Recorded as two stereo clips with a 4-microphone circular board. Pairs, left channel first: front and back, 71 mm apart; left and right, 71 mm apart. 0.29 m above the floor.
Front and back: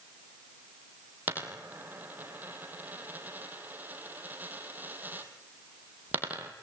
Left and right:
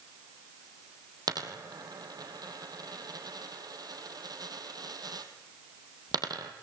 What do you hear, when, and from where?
1.3 s a dropped coin: 115° right, 2 m